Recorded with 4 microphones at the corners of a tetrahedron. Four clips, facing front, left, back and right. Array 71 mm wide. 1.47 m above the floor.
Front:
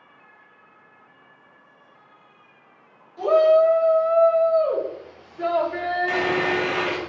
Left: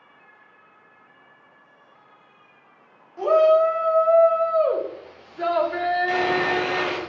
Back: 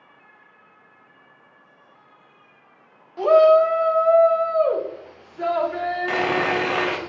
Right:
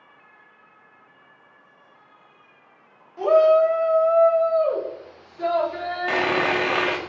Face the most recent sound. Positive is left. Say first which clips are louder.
# even, back 2 dB
turn(degrees=-125)